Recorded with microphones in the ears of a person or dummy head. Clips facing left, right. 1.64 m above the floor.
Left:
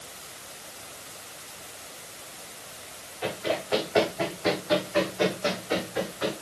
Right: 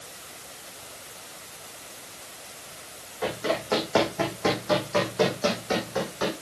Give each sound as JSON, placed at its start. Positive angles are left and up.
{"t": 3.2, "sound": "running footsteps", "side_deg": -65, "distance_m": 6.0}